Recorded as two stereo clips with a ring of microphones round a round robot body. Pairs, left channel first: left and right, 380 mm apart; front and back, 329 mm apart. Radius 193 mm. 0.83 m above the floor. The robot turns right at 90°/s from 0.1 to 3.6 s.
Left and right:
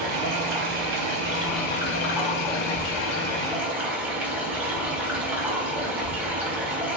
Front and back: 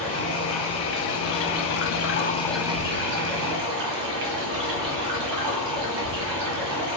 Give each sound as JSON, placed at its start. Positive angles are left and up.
{"t": 0.0, "sound": "running water", "azimuth_deg": -130, "distance_m": 0.9}